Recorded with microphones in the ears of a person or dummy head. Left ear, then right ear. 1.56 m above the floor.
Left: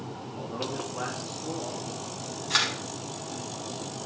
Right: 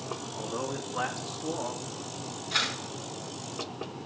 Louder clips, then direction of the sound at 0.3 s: Left 2 dB; 25° right (ahead or behind).